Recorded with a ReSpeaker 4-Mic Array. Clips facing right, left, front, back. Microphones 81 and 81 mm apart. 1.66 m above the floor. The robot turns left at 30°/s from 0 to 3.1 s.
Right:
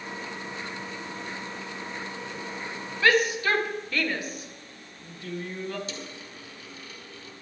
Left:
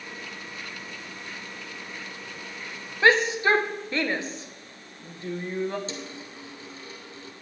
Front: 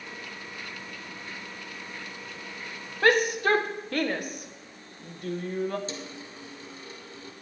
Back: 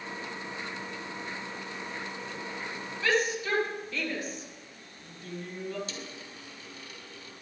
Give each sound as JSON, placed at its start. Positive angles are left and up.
{"t": 3.0, "sound": "a shout", "azimuth_deg": 30, "distance_m": 1.4}
{"t": 5.9, "sound": "a dropped coin", "azimuth_deg": 40, "distance_m": 2.5}